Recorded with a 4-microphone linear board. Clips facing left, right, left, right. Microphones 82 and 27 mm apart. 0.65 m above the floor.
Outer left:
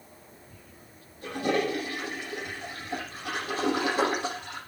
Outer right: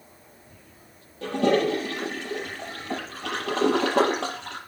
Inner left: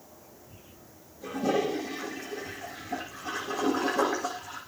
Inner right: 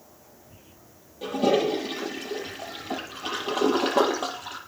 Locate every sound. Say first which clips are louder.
1.2 s a toilet flushing: outer right 6 dB, inner right 5 dB; 85° right, 6 m